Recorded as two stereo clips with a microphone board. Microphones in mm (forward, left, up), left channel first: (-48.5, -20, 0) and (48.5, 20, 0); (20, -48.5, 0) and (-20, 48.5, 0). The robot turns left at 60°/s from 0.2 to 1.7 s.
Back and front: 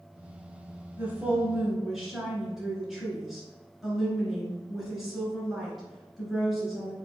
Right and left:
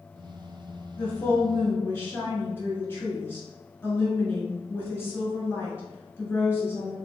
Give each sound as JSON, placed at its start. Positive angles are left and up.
{"t": 1.0, "sound": "a woman speaking", "azimuth_deg": -15, "distance_m": 1.3}